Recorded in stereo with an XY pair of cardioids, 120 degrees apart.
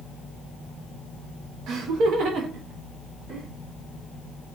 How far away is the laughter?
About 0.5 m.